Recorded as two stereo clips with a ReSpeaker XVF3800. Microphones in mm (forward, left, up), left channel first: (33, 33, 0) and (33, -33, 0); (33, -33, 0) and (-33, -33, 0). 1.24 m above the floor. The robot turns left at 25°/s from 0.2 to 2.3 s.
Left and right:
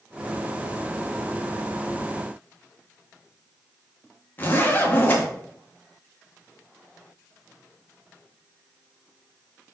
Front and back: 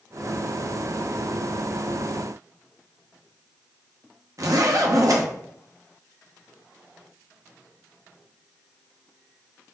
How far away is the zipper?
About 0.7 m.